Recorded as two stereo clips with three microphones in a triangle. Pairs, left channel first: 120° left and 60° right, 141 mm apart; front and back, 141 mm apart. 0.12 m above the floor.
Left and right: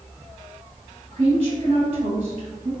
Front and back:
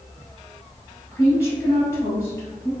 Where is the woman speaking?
65° right, 1.8 m.